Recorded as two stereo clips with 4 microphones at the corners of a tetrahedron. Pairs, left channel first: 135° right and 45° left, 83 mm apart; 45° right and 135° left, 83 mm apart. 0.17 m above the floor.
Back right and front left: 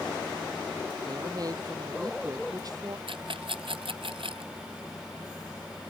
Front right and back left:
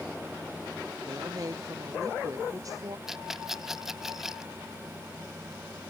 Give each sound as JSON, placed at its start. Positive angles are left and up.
{"t": 1.1, "sound": "a woman speaking", "azimuth_deg": 90}
{"t": 3.1, "sound": "a rattle", "azimuth_deg": 50}